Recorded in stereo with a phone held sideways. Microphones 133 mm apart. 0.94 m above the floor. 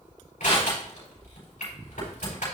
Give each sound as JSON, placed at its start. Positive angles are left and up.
{"t": 0.4, "sound": "crushing", "side_deg": 80, "distance_m": 4.0}